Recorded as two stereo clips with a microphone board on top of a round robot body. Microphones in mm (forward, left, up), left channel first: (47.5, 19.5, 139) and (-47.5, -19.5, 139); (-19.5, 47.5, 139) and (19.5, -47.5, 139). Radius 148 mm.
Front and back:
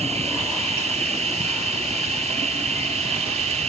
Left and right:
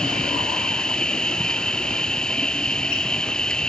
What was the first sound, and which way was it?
An insect, 165° right.